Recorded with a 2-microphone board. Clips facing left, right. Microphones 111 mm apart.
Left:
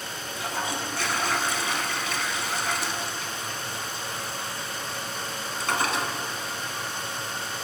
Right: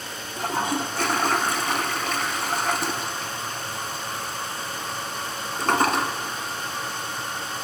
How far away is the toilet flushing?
About 0.6 m.